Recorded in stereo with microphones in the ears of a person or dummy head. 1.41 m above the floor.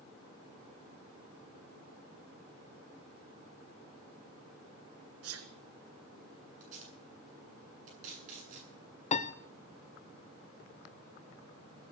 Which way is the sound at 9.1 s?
35° left (ahead or behind).